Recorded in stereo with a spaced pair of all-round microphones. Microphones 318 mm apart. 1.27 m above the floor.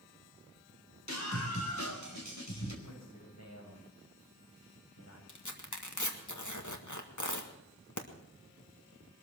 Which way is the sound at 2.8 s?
60° left (ahead or behind).